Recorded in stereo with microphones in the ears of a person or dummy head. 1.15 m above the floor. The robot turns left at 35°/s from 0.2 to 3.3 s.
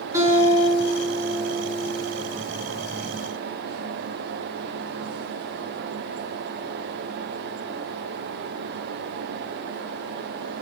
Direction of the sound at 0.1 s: 165° right.